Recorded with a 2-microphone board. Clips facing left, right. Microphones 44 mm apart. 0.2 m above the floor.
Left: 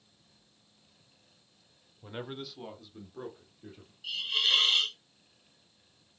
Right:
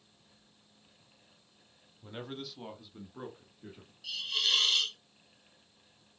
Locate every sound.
2.0 s a man speaking: 20° left (ahead or behind), 1.1 m; by 3.9 s 25° right (ahead or behind), 3 m
4.0 s a hiss: 20° left (ahead or behind), 1.4 m